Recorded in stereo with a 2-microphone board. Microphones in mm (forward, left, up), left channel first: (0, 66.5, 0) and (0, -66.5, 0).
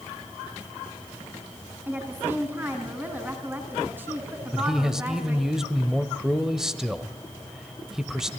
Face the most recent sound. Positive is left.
turn(degrees=-5)  # may be behind; listen again after turning